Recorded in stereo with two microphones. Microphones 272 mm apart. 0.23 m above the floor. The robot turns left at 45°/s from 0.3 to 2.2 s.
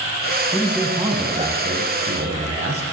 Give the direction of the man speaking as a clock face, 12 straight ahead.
12 o'clock.